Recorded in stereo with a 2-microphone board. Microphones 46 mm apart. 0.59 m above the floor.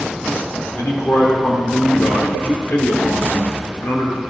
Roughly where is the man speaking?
Left.